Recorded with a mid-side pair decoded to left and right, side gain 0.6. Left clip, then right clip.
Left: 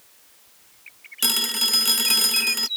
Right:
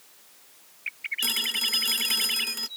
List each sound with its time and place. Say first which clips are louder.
1.2 s a phone ringing: left 5 dB; 40° left